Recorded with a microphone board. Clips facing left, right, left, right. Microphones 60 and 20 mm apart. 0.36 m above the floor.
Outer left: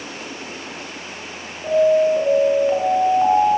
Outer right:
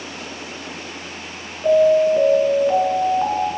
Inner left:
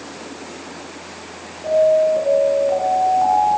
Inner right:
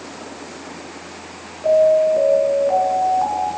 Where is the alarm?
5° right (ahead or behind), 7 m.